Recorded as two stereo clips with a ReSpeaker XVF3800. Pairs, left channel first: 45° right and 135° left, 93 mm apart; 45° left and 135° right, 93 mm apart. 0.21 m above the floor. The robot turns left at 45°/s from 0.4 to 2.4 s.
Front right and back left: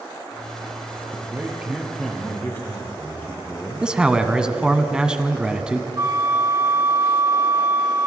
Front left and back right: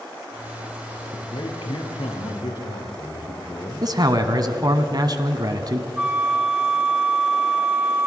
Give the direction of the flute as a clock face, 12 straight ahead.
7 o'clock.